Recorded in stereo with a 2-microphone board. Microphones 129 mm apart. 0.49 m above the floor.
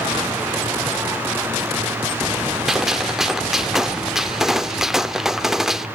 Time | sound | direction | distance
2.7 | a gunshot | 5° right (ahead or behind) | 0.8 m